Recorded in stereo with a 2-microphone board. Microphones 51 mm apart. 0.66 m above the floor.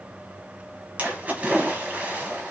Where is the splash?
30° right (ahead or behind), 0.6 m.